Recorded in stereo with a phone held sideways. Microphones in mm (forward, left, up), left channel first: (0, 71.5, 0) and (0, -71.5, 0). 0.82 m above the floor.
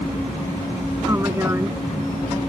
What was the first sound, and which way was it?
A woman speaking, 20° right (ahead or behind).